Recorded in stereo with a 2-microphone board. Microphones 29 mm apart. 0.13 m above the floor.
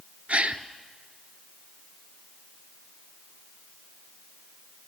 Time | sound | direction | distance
0.3 | a gasp | 50° right (ahead or behind) | 0.8 m